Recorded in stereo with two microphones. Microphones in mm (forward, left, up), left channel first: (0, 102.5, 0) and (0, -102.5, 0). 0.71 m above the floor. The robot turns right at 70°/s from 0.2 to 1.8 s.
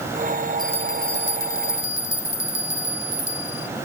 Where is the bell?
20° left; by 3.7 s 105° left.